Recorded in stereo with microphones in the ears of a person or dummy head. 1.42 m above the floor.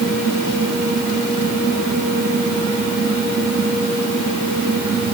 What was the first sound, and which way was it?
Only background noise.